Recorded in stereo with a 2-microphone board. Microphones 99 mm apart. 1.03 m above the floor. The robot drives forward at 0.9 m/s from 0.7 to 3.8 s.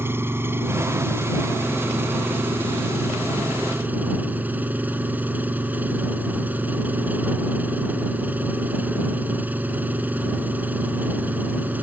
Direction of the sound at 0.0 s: 25° right (ahead or behind).